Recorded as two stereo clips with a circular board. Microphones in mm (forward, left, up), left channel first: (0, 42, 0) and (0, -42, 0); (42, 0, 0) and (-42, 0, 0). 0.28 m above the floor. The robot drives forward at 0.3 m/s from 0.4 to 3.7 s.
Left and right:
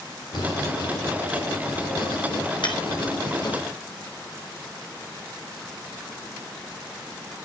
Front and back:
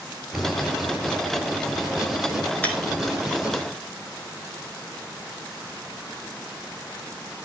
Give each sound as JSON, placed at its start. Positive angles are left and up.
{"t": 0.3, "sound": "writing", "azimuth_deg": 90, "distance_m": 6.0}
{"t": 2.6, "sound": "breaking glass", "azimuth_deg": 70, "distance_m": 2.5}